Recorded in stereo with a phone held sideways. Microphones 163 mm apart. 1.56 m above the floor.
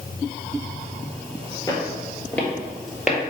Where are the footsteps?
25° left (ahead or behind), 1.7 m; by 3.2 s 5° right (ahead or behind), 1.8 m.